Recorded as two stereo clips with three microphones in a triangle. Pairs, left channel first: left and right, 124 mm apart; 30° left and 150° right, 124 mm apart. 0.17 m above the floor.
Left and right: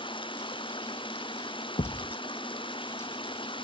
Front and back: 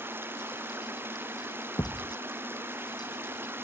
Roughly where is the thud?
Left.